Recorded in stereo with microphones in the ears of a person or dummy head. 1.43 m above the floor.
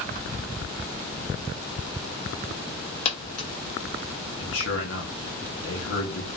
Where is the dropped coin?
35° left (ahead or behind), 1.1 m.